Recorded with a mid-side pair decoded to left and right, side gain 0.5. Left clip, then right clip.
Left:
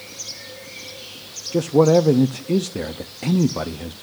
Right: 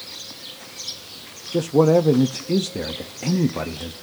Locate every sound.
1.5 s a man speaking: 10° left, 0.9 m